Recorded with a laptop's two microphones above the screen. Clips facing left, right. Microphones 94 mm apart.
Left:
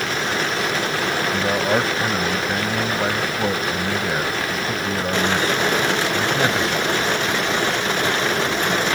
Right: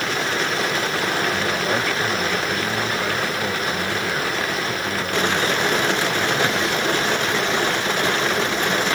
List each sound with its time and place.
1.3 s a man speaking: 30° left (ahead or behind)